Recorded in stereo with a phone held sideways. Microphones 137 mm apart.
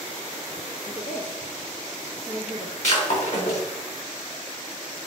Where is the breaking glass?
65° left (ahead or behind), 3.5 m.